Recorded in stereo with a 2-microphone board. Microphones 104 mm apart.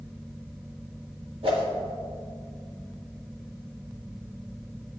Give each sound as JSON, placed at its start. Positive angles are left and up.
{"t": 1.4, "sound": "a whoosh", "side_deg": -60, "distance_m": 1.7}